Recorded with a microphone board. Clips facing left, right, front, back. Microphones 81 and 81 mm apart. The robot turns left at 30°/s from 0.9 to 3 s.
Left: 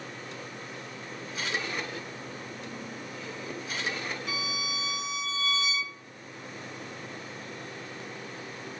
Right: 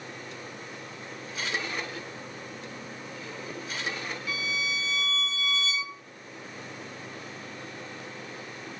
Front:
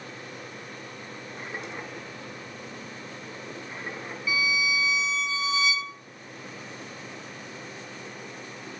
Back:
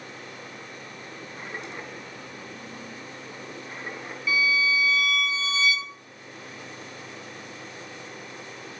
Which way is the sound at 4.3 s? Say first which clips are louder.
Right 2 dB, back 3 dB; 65° left.